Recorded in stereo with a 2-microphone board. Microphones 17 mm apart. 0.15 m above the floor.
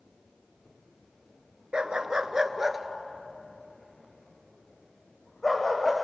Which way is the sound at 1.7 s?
60° right (ahead or behind).